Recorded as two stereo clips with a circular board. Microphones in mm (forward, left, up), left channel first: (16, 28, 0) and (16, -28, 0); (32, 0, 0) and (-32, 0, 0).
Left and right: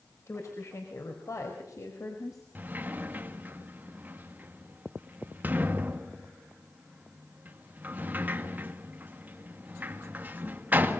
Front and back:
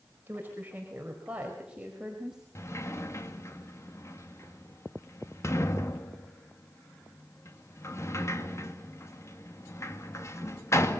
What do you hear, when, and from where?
0.3 s a woman speaking: 125° left, 4.5 m; by 2.5 s 100° left, 5 m
2.5 s a sliding door: 35° right, 2 m